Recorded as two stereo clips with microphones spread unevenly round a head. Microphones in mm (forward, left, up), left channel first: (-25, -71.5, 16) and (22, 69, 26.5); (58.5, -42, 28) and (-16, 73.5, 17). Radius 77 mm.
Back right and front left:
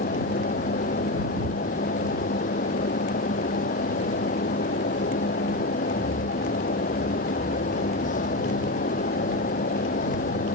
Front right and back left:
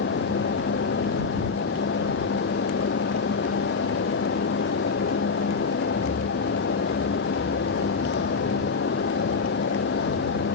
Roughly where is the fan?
Right.